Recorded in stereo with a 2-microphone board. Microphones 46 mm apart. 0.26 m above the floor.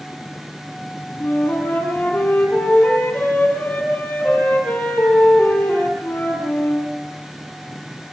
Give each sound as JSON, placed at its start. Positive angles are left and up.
{"t": 1.2, "sound": "a flute", "side_deg": 40, "distance_m": 6.5}